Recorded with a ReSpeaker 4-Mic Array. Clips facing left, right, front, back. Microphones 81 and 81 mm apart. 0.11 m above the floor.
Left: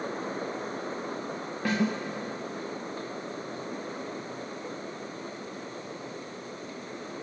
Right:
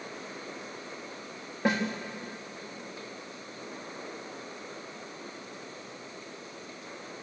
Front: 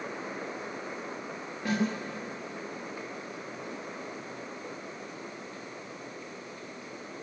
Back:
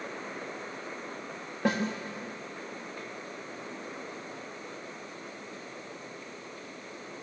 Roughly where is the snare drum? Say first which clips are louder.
Even, back 1 dB; behind.